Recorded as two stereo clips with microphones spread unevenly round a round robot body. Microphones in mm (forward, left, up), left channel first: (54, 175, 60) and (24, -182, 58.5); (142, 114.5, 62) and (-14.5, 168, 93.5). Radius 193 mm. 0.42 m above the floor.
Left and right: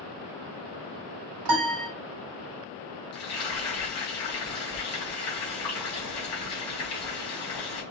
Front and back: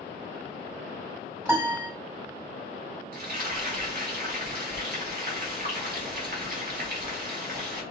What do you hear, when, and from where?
1.4 s a piano: 115° right, 2 m
3.1 s frying: 130° left, 2.5 m